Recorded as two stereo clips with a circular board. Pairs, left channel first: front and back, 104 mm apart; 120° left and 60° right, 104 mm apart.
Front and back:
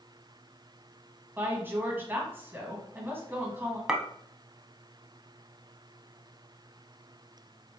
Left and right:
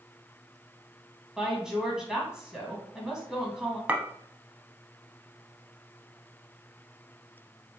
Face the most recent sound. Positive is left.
turn(degrees=-110)